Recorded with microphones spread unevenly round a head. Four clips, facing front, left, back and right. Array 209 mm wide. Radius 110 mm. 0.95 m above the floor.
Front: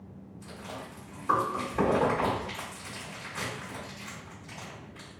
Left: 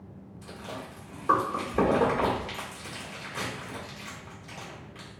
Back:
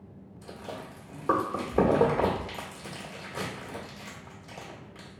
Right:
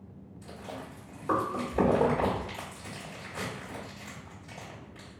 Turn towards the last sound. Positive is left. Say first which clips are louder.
# left 2 dB, back 2 dB
turn(degrees=170)